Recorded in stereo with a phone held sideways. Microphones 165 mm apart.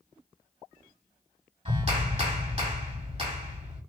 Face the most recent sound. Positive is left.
turn(degrees=-35)  # may be behind; listen again after turning